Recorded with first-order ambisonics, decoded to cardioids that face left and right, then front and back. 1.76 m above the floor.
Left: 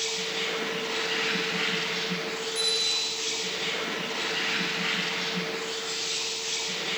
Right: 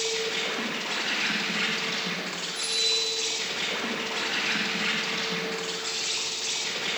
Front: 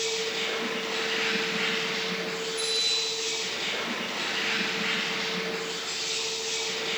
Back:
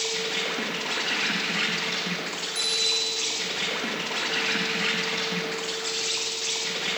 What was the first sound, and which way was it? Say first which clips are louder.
An insect: right 1 dB, back 1 dB; 145° right.